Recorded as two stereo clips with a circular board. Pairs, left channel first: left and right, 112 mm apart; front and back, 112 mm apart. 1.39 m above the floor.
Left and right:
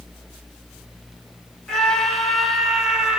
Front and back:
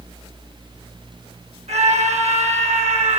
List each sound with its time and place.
1.7 s a scream: 175° left, 6 m; by 3.2 s 175° right, 6 m